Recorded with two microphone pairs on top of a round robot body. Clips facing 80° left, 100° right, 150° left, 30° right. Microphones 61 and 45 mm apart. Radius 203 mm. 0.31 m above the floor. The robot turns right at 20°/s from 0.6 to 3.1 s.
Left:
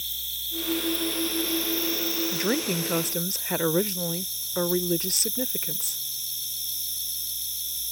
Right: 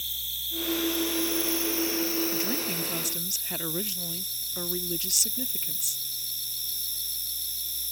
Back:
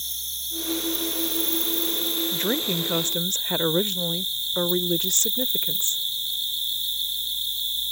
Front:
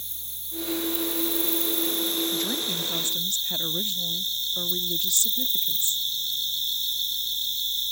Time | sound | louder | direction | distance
0.0 | an insect | even, back 9 dB | 170° left | ?
2.3 | a woman speaking | left 5 dB, back 3 dB | 105° left | ?